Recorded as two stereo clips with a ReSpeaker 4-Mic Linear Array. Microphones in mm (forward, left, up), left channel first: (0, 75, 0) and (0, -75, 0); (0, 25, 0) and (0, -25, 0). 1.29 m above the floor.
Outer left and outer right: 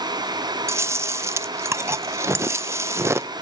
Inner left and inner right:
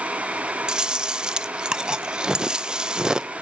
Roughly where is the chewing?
Centre.